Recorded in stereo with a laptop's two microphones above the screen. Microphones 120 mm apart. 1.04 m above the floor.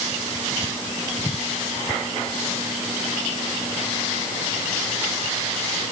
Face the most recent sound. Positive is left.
No sound to turn to.